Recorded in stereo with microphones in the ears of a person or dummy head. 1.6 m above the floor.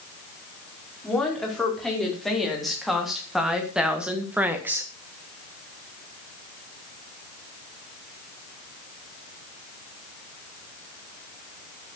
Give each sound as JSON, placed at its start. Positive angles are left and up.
{"t": 1.0, "sound": "a woman speaking", "side_deg": 0, "distance_m": 5.0}